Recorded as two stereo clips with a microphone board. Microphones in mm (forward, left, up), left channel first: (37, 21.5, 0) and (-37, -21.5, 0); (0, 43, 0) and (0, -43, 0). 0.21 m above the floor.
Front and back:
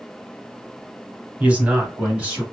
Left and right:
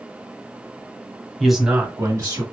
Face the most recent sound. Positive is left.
turn(degrees=-75)